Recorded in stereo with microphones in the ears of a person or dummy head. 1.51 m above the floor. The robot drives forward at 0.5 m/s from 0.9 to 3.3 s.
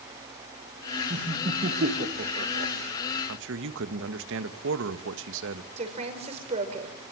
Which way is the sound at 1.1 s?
40° right (ahead or behind).